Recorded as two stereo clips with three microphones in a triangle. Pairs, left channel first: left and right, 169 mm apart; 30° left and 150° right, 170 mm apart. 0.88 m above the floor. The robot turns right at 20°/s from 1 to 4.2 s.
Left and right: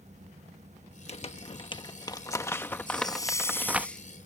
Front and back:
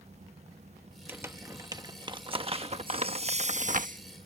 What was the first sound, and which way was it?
Crumpling, 135° left.